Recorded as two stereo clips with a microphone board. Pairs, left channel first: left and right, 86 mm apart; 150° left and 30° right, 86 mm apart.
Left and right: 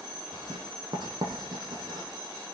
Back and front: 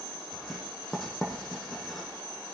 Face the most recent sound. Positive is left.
turn(degrees=-125)